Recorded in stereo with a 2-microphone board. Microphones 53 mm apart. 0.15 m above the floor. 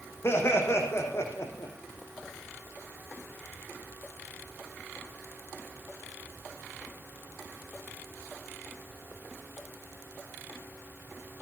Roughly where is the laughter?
Left.